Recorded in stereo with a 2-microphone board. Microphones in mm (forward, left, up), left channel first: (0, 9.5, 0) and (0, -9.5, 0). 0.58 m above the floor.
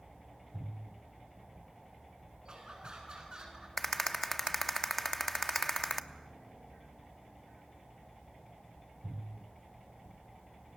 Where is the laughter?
45° right (ahead or behind), 7 m; by 3.7 s 40° right (ahead or behind), 7 m.